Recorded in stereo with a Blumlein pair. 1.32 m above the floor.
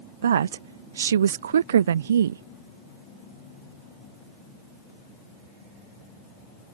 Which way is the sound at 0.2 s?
65° right.